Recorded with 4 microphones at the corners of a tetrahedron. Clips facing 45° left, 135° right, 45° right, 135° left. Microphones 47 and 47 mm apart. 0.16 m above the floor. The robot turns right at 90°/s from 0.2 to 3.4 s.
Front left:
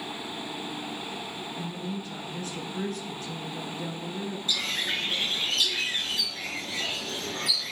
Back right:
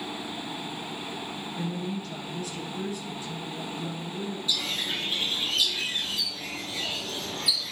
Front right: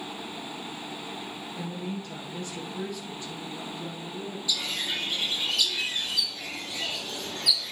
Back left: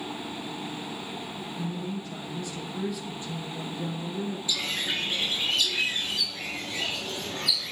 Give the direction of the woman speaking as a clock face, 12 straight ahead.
3 o'clock.